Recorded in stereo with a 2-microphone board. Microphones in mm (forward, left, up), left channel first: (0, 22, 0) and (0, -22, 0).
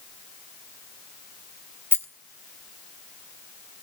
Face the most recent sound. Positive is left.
turn(degrees=65)  # may be behind; listen again after turning